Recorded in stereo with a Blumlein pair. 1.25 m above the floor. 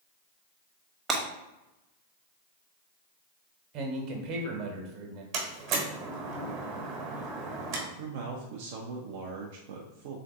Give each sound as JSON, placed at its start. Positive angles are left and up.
{"t": 1.1, "sound": "breaking glass", "azimuth_deg": -20, "distance_m": 1.0}
{"t": 3.7, "sound": "a man speaking", "azimuth_deg": -40, "distance_m": 1.1}
{"t": 5.3, "sound": "a door slam", "azimuth_deg": -40, "distance_m": 1.2}
{"t": 8.0, "sound": "a man speaking", "azimuth_deg": -50, "distance_m": 0.5}